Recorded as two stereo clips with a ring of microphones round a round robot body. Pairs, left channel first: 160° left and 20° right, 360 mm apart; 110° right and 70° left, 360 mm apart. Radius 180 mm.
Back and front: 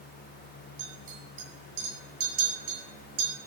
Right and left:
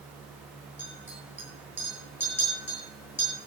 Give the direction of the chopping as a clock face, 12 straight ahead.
No chopping in this recording.